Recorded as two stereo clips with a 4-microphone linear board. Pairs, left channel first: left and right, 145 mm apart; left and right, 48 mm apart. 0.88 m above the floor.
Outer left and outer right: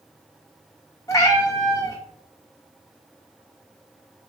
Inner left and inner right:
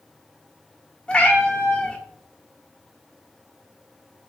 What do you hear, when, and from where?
1.1 s a cat meowing: 20° left (ahead or behind), 1.0 m